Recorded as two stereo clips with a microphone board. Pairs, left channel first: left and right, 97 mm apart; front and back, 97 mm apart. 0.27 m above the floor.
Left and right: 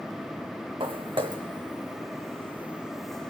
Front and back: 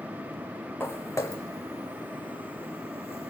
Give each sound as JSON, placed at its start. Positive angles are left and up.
{"t": 0.8, "sound": "footsteps", "azimuth_deg": -65, "distance_m": 1.5}